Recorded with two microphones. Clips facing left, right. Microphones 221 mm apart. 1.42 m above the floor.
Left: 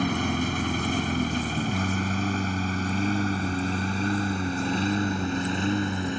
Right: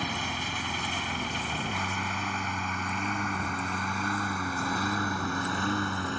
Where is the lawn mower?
55° left (ahead or behind); by 6.2 s 20° left (ahead or behind).